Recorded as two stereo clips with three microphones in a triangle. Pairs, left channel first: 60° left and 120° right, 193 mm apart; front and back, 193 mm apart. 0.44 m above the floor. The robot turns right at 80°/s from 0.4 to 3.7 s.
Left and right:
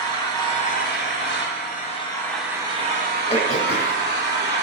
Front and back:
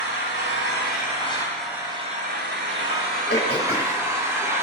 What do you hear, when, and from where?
0.0 s an engine running: 10° right, 3 m; by 4.6 s 105° right, 3 m
3.3 s throat clearing: straight ahead, 1.6 m; by 4.0 s 35° left, 1.6 m